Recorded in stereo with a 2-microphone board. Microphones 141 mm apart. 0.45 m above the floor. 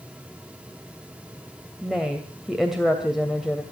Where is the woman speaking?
Centre (ahead or behind), 2 m.